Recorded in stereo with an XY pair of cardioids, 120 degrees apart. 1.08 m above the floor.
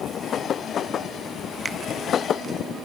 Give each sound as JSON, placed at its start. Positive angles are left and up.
{"t": 1.6, "sound": "a finger snap", "azimuth_deg": -20, "distance_m": 0.9}